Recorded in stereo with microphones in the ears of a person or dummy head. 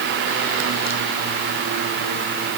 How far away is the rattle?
No rattle in this recording.